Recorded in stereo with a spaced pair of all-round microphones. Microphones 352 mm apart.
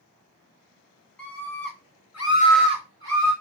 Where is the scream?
70° left (ahead or behind), 2 m; by 3.3 s 50° right (ahead or behind), 1.4 m.